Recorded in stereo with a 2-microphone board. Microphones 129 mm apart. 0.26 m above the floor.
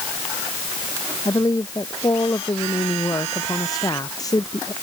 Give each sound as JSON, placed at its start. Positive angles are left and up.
{"t": 1.2, "sound": "a woman speaking", "side_deg": 30}